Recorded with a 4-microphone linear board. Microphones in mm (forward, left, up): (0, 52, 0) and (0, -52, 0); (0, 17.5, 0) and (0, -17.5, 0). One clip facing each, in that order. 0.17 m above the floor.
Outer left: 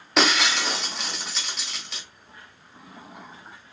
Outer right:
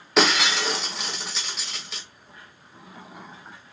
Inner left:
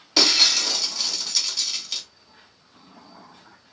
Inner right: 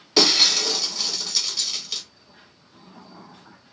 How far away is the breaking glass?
About 0.7 m.